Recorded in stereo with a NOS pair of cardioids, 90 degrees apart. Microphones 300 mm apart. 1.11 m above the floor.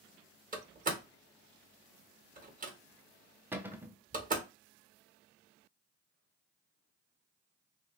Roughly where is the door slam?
Ahead right.